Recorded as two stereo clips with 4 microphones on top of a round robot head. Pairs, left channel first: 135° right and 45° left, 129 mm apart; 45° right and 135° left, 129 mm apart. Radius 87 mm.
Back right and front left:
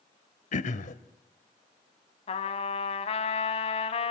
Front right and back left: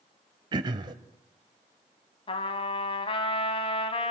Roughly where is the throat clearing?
Behind.